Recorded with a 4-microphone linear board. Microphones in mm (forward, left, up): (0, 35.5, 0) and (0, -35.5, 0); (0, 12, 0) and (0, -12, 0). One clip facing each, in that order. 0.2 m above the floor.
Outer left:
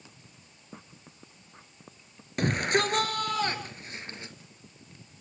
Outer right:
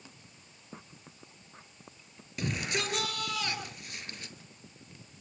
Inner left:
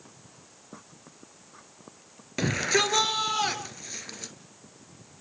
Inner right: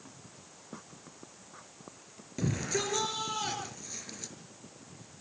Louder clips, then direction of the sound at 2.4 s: Outer left 8 dB, inner left 8 dB; 55° left (ahead or behind).